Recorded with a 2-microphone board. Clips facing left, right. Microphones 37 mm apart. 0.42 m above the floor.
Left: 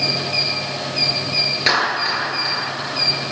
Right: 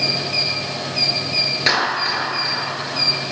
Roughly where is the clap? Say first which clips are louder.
Left 1 dB; centre.